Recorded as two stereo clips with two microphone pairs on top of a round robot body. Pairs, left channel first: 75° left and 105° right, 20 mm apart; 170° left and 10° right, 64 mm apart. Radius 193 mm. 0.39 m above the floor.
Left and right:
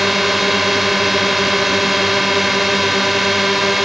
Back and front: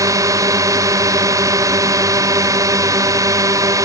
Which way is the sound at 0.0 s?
20° right.